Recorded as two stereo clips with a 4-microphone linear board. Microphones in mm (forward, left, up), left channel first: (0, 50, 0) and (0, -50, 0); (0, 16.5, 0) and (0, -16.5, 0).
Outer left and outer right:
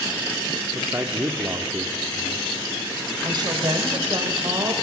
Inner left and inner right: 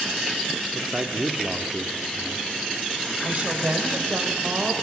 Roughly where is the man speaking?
Right.